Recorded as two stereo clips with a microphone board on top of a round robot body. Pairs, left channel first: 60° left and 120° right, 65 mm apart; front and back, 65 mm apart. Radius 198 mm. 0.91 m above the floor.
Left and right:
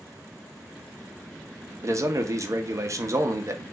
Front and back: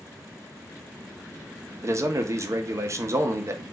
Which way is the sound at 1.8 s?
150° right.